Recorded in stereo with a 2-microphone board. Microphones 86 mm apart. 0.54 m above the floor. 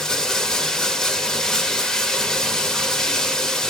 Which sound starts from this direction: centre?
Running water, at 0.0 s.